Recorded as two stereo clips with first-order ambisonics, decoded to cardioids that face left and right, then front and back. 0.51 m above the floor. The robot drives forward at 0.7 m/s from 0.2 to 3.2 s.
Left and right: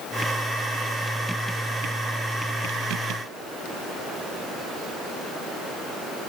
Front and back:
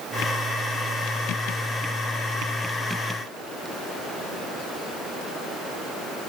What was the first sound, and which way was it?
Only background noise.